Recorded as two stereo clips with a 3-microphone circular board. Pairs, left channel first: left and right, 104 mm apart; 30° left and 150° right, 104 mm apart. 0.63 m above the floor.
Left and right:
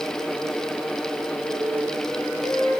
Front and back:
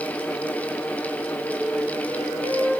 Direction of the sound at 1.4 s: 20° left.